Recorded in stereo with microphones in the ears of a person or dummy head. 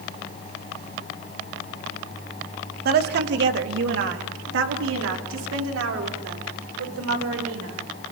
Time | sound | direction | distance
2.9 | a woman speaking | 55° right (ahead or behind) | 2.5 m